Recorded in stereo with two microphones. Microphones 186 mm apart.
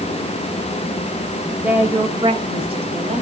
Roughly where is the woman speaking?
Centre.